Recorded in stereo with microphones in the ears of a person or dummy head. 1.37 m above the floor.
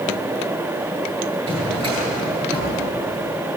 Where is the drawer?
25° right (ahead or behind), 9.5 m.